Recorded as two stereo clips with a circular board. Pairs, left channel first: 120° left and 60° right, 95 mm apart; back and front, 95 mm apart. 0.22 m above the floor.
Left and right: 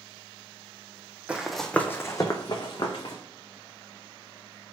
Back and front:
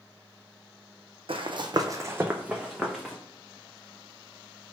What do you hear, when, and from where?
1.3 s running footsteps: 15° left, 0.6 m; by 3.1 s 90° left, 1.1 m